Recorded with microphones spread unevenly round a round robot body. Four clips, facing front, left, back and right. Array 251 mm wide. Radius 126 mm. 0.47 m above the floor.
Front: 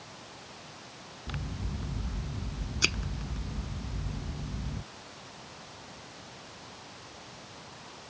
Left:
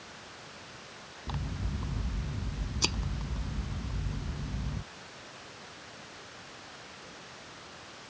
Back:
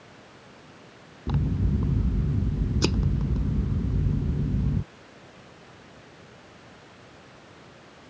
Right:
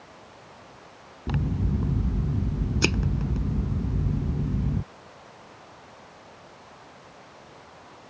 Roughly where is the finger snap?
I don't hear a finger snap.